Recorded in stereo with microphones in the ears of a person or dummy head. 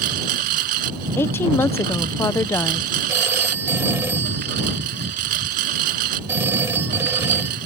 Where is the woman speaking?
15° left (ahead or behind).